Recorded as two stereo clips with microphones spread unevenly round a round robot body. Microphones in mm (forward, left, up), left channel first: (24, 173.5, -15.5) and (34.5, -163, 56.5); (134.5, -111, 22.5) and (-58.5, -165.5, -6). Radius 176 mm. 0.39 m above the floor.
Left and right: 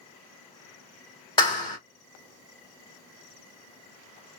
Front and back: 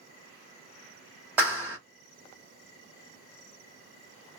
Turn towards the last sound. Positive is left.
turn(degrees=135)